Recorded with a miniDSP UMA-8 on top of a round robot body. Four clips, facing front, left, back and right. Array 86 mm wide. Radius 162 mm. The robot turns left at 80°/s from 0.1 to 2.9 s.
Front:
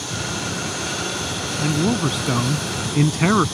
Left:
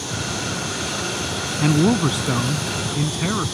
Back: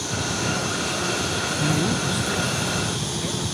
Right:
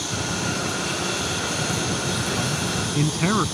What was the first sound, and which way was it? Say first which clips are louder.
A man speaking: left 9 dB, front 5 dB; 90° left.